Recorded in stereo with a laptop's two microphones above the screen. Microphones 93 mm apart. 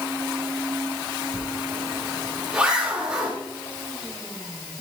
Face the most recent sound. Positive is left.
turn(degrees=-10)  # may be behind; listen again after turning